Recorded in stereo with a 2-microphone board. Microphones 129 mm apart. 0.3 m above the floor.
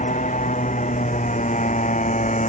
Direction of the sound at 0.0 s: 85° left.